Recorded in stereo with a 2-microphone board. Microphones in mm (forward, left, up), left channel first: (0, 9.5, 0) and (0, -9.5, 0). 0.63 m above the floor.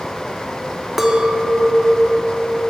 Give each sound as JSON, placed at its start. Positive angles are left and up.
{"t": 1.0, "sound": "a clink", "side_deg": -15, "distance_m": 0.6}